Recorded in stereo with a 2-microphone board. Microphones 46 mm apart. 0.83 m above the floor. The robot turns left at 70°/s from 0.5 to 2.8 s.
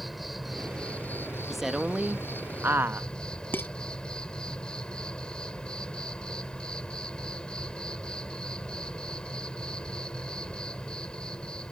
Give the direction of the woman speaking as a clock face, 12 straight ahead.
12 o'clock.